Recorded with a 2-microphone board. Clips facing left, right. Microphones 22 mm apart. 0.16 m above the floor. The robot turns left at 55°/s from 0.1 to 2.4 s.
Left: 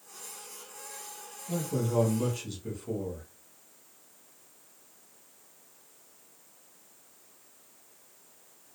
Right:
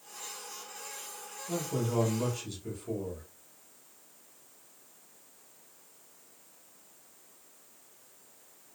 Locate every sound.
1.5 s a man speaking: 160° right, 1.2 m; by 3.3 s 150° left, 1.2 m